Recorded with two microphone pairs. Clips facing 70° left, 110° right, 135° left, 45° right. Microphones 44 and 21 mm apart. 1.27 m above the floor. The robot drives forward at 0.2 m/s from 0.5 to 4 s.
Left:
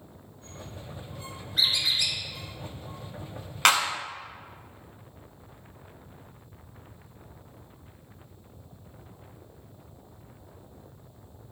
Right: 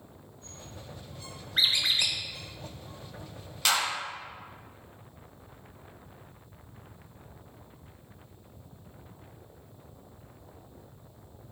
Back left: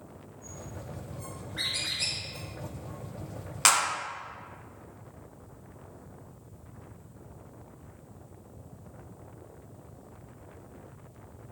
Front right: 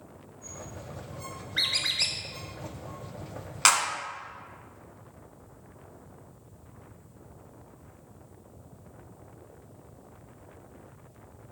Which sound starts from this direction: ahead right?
A squeak, at 1.6 s.